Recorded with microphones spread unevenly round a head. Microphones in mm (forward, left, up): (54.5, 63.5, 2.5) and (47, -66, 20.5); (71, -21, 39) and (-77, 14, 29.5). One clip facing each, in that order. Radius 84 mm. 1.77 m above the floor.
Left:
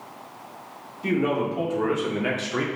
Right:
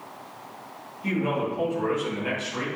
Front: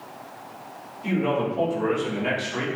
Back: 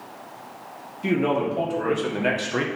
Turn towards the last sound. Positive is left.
turn(degrees=130)